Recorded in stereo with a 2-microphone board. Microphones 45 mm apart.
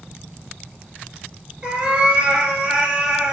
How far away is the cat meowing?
About 1.4 m.